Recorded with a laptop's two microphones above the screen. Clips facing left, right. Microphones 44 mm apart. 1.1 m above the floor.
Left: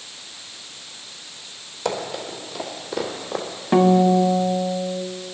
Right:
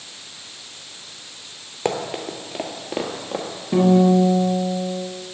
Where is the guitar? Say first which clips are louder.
Even; 50° left (ahead or behind), 0.8 m.